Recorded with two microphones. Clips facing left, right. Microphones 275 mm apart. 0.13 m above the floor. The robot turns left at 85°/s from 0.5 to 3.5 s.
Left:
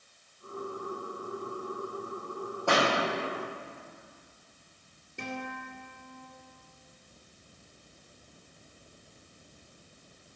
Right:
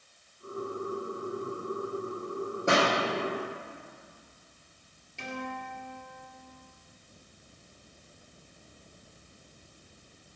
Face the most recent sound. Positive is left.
turn(degrees=55)  # may be behind; listen again after turning